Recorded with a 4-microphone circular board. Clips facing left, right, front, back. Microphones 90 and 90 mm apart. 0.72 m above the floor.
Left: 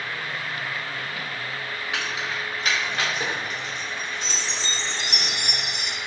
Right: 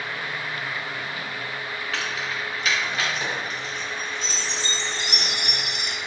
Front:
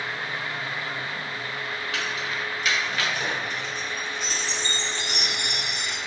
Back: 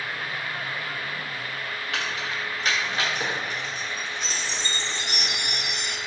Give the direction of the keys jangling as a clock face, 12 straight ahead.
7 o'clock.